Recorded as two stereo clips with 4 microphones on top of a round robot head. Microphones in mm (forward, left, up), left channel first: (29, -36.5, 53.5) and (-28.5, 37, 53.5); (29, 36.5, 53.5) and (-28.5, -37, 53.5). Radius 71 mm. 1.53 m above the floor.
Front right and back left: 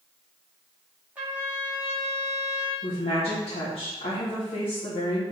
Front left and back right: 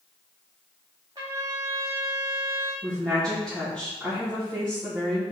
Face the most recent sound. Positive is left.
turn(degrees=-30)